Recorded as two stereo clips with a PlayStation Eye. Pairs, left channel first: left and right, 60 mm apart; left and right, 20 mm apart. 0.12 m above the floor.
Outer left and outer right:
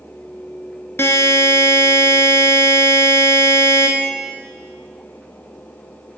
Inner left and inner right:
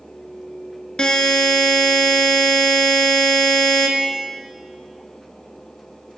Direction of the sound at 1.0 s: 45° left (ahead or behind).